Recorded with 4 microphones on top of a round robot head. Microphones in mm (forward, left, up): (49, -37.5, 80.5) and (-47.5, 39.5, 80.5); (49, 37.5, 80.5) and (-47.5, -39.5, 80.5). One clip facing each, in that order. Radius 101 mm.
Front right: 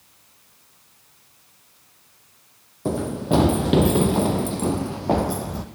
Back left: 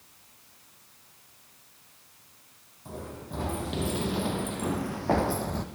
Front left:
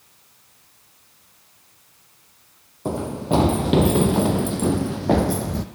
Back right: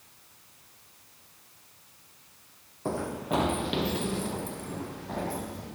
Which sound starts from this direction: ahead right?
Running footsteps, at 2.9 s.